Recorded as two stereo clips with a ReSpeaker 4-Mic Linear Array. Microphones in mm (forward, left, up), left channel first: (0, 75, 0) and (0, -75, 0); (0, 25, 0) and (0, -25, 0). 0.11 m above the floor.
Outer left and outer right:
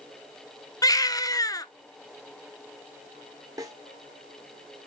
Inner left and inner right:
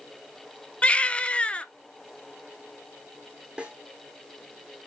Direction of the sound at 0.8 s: 25° left (ahead or behind).